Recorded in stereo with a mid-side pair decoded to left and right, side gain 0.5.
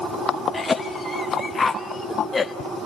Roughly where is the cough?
Ahead left.